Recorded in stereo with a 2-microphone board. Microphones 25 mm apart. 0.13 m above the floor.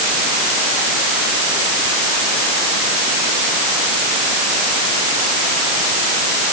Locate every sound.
Only background noise.